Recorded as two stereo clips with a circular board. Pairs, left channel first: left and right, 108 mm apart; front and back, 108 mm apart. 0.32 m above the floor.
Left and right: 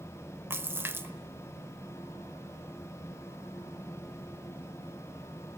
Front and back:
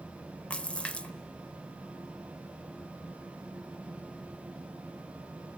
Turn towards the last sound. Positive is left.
turn(degrees=-65)